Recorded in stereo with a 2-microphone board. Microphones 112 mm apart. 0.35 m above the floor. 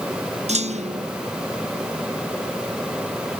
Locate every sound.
0.5 s a clunk: 90° right